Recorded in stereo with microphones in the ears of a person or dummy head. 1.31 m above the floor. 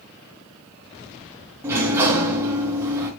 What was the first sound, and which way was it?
A sliding door, 15° right (ahead or behind).